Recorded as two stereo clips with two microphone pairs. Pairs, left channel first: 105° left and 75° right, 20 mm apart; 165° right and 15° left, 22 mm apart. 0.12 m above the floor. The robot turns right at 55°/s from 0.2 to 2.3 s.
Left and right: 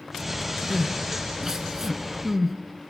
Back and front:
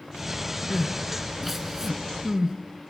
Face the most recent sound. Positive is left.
turn(degrees=-10)